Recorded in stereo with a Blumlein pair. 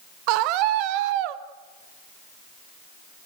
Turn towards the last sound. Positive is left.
turn(degrees=-45)